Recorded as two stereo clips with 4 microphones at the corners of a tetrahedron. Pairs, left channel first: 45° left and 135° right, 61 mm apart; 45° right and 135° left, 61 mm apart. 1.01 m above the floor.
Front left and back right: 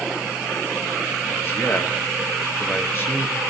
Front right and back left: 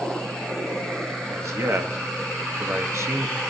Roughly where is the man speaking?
Left.